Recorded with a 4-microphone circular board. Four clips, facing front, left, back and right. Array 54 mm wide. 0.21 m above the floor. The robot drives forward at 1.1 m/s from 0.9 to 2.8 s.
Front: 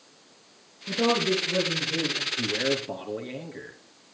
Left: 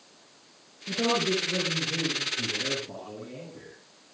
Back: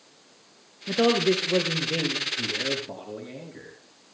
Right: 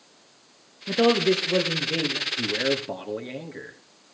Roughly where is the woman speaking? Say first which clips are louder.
Right 6 dB, back 3 dB; behind right.